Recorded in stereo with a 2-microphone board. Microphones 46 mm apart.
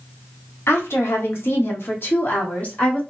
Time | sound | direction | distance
0.7 | a woman speaking | 70° left (ahead or behind) | 0.9 m